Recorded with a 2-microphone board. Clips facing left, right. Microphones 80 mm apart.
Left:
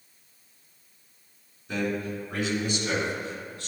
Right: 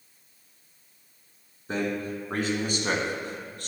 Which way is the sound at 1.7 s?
40° right (ahead or behind).